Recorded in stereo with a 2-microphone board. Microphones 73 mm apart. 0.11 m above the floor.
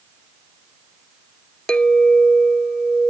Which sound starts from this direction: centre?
A clink, at 1.7 s.